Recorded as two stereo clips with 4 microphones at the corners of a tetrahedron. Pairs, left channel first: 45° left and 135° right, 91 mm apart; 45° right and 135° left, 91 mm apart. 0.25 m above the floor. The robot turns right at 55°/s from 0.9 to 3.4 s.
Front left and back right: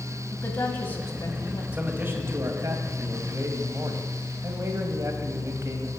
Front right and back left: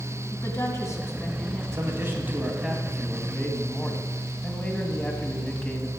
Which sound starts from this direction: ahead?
A woman speaking, at 0.3 s.